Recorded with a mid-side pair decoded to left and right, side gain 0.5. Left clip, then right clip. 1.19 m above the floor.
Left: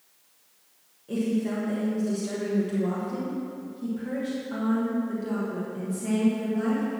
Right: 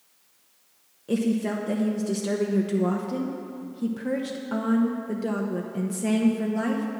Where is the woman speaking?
55° right, 1.1 m.